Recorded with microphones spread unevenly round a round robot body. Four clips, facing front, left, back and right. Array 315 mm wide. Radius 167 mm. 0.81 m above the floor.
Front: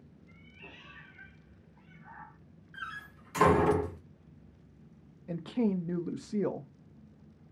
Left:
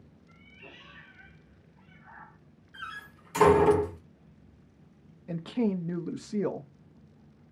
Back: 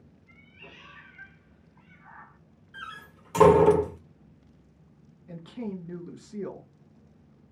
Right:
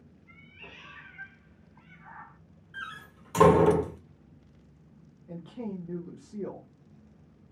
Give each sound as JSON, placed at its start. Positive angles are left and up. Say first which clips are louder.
{"t": 0.3, "sound": "a cat meowing", "louder": "right 1 dB, back 2 dB", "azimuth_deg": -100, "distance_m": 2.0}
{"t": 2.7, "sound": "a door slam", "louder": "even, back 1 dB", "azimuth_deg": -165, "distance_m": 1.6}
{"t": 5.3, "sound": "a woman speaking", "louder": "left 9 dB, front 6 dB", "azimuth_deg": 85, "distance_m": 0.6}